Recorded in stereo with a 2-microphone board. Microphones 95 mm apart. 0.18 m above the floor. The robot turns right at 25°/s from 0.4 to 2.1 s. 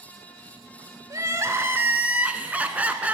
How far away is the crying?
About 0.5 m.